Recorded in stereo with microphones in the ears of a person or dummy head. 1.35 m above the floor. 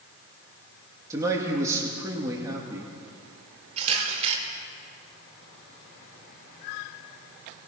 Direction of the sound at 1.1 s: 20° right (ahead or behind).